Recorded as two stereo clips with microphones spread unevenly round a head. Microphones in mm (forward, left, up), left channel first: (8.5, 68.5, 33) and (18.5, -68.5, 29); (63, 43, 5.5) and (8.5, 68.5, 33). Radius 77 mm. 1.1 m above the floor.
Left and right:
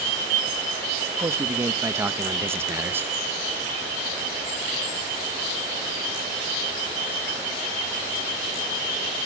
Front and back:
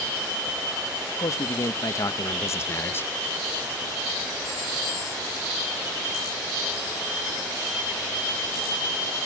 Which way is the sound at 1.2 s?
15° right.